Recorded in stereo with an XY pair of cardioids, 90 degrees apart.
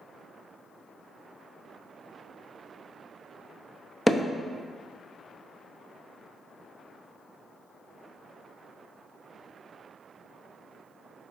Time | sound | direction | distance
4.1 | hammering | 15° left | 0.7 m